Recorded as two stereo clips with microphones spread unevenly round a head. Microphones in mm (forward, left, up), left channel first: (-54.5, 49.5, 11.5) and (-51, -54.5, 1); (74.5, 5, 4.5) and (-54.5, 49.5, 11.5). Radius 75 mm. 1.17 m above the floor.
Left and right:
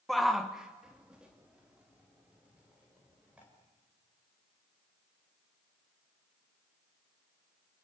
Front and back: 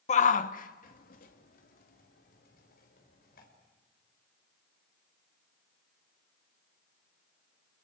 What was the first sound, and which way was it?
A shout, straight ahead.